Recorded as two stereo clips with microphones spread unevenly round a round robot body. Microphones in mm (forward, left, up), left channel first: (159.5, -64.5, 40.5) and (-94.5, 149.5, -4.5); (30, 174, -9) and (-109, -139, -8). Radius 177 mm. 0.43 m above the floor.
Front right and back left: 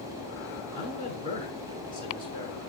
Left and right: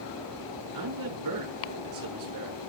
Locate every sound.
0.7 s a man speaking: 145° right, 6 m